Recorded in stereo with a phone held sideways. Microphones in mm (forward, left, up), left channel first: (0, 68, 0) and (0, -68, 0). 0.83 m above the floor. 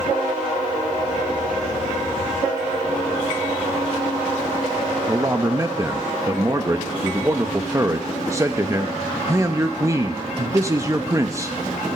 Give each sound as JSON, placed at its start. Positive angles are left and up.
{"t": 5.1, "sound": "a man speaking", "side_deg": -20, "distance_m": 0.7}